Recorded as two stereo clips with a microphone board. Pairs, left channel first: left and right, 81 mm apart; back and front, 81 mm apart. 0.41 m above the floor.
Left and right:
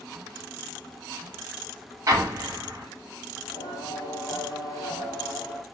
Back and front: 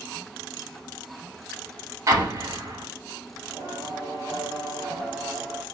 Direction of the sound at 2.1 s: 45° right.